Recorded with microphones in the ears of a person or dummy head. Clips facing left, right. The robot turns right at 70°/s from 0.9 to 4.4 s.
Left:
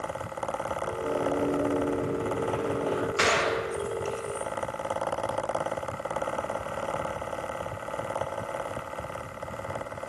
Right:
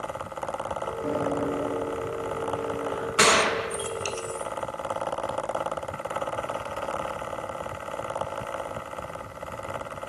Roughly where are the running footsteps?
Right.